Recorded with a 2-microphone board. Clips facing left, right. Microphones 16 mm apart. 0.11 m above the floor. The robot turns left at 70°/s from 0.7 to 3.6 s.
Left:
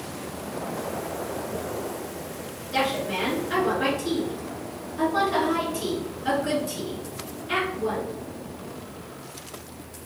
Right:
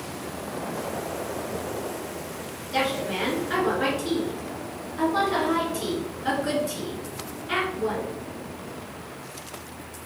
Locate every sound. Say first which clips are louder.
2.7 s a woman speaking: left 1 dB; 5° left (ahead or behind), 1.5 m; by 8.1 s 20° right (ahead or behind), 1.5 m